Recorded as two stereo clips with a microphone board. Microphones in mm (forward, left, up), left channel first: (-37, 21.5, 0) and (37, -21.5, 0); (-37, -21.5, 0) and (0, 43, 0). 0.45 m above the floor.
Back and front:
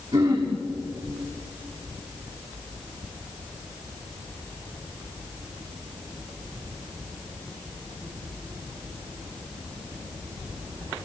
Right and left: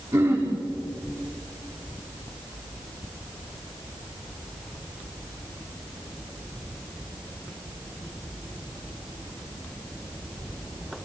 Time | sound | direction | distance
0.1 | throat clearing | 5° right | 7 m